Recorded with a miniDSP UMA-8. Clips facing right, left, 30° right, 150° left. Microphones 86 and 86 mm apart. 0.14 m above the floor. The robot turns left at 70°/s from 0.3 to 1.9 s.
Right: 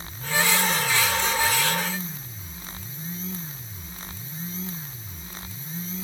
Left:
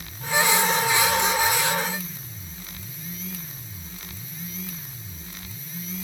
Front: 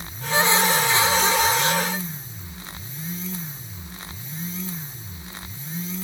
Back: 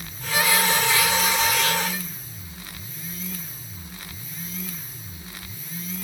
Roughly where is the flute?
I don't hear a flute.